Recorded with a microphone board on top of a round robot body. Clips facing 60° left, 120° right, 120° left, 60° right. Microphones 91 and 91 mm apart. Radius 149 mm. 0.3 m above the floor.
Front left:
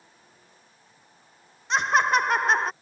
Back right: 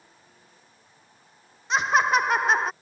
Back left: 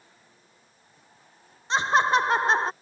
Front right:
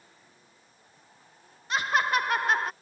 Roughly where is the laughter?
Behind left.